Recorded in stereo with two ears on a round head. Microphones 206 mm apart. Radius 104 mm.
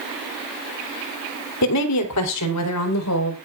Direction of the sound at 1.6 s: 90° left.